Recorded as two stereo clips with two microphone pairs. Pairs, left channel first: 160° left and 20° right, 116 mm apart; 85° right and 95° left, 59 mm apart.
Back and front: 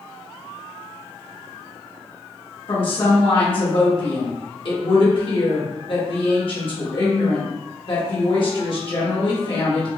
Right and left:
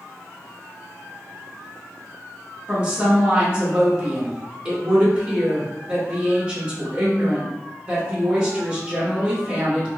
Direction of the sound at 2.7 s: 160° left.